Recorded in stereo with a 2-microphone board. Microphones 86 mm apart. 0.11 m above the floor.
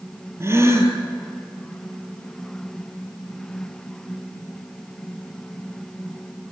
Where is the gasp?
30° right (ahead or behind), 3 m.